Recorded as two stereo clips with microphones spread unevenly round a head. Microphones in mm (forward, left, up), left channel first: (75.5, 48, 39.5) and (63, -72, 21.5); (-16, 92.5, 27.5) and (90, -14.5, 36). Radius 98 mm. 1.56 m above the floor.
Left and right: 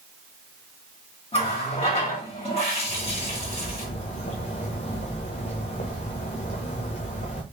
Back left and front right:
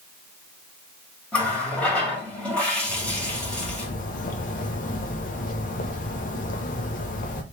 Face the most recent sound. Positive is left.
turn(degrees=110)